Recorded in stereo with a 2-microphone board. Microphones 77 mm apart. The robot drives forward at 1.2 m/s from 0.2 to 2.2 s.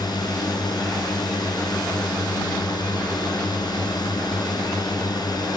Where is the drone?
65° left (ahead or behind).